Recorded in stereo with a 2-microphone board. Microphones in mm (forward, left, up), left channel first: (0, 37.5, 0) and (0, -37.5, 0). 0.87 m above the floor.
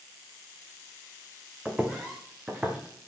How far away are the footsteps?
About 2.5 m.